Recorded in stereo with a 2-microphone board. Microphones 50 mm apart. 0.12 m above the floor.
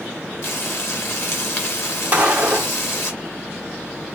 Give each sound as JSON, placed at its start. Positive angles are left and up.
{"t": 0.4, "sound": "frying", "side_deg": 45, "distance_m": 3.0}
{"t": 2.1, "sound": "a gunshot", "side_deg": -25, "distance_m": 1.8}